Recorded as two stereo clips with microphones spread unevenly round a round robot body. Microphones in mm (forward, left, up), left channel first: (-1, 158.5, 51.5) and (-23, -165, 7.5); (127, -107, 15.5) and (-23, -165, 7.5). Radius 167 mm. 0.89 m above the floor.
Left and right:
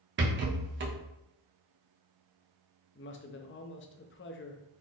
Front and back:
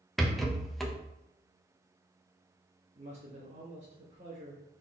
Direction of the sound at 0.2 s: 70° right.